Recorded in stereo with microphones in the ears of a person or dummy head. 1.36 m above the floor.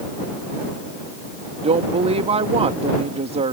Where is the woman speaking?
35° right (ahead or behind).